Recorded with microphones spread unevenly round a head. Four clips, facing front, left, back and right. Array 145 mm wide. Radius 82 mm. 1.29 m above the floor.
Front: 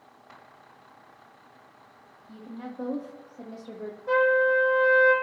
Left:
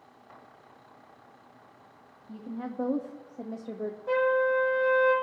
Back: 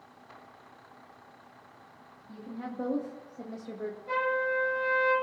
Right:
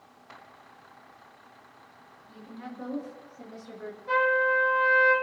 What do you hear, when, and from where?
2.3 s a woman speaking: 95° left, 2.5 m; by 4.0 s 90° left, 1.6 m
4.1 s a trumpet: 55° left, 5.5 m